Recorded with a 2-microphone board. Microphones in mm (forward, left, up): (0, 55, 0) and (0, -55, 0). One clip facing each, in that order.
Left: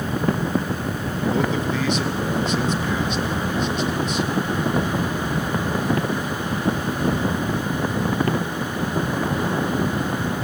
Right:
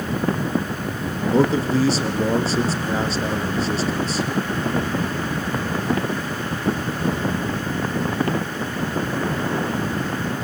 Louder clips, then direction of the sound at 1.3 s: Right 6 dB; 35° right (ahead or behind).